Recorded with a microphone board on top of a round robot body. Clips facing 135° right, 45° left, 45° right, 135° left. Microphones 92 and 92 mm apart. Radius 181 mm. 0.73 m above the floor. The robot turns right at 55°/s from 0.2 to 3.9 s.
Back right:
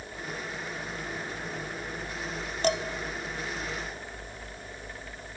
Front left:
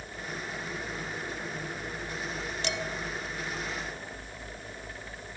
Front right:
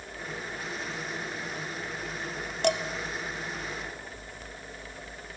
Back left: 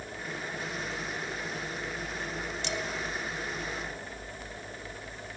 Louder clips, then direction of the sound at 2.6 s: Back right 9 dB, front right 12 dB; 85° right.